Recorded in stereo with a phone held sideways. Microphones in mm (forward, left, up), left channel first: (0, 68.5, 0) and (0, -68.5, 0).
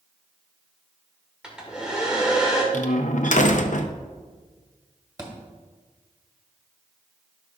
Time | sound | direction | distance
1.4 | a hair dryer | 5° right (ahead or behind) | 2 m
2.7 | a door slam | 70° left (ahead or behind) | 0.6 m
5.2 | a thud | 25° right (ahead or behind) | 1.8 m